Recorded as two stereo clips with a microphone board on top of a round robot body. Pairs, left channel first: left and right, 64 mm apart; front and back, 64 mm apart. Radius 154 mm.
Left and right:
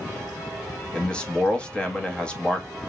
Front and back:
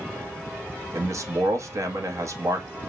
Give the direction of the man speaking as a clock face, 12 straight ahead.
7 o'clock.